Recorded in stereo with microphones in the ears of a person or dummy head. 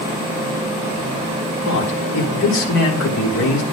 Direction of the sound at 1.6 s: 65° left (ahead or behind).